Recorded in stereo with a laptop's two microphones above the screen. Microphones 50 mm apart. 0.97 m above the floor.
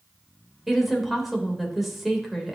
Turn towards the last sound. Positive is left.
turn(degrees=0)  # may be behind; listen again after turning